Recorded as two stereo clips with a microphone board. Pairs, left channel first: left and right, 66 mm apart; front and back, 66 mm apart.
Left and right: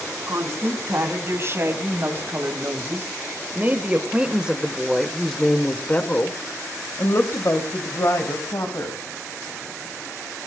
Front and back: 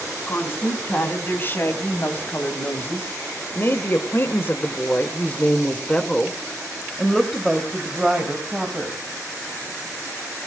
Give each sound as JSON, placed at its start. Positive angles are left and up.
{"t": 0.3, "sound": "a woman speaking", "azimuth_deg": -55, "distance_m": 4.0}